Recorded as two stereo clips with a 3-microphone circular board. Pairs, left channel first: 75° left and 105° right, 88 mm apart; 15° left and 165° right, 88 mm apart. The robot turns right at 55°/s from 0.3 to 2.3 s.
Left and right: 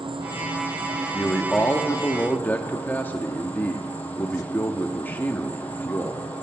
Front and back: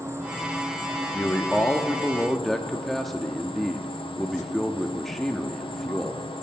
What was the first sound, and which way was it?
An insect, 105° right.